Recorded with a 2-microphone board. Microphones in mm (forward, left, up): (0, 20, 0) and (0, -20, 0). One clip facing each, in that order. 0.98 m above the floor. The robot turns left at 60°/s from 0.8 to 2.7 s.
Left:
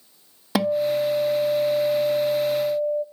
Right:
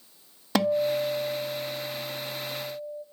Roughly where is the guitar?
Behind.